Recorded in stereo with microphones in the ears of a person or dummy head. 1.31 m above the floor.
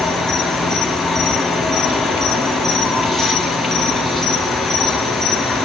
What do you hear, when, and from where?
0.0 s an insect: 5° left (ahead or behind), 0.9 m